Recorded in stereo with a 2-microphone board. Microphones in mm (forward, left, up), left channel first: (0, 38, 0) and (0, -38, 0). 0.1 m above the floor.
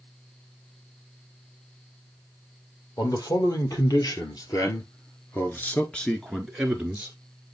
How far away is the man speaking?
About 2.5 m.